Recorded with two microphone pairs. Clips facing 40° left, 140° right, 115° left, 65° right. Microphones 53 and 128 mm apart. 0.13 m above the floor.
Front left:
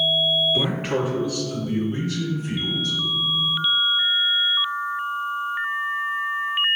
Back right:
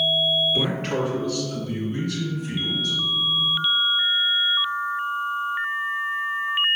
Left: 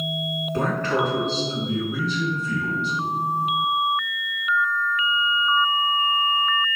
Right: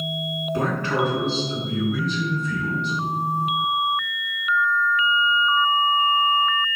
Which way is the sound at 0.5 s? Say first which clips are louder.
Front left 1 dB, even; 40° right.